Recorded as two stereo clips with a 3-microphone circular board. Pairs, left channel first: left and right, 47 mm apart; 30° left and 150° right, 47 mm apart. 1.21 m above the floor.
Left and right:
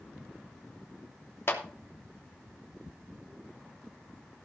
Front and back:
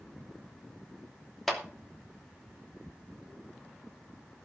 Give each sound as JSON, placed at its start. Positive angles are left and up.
{"t": 1.5, "sound": "a clap", "azimuth_deg": 115, "distance_m": 2.5}